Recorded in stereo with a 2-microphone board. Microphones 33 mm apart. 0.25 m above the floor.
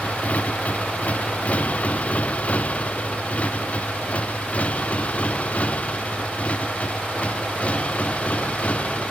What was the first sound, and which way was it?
A motorcycle, 45° left (ahead or behind).